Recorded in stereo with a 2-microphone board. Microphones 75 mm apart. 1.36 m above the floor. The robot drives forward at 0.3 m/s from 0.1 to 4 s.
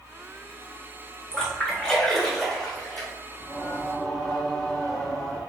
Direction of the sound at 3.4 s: 15° left (ahead or behind).